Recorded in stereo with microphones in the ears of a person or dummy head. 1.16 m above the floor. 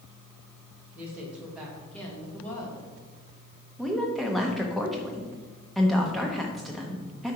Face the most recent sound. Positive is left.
turn(degrees=0)  # may be behind; listen again after turning